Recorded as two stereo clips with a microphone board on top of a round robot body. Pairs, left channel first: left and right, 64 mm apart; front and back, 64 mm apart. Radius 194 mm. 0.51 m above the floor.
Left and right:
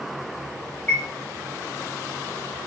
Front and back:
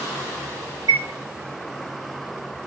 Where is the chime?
155° left, 1.5 m.